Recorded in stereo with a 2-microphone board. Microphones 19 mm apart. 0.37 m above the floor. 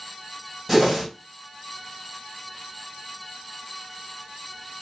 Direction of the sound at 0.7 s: Centre (ahead or behind).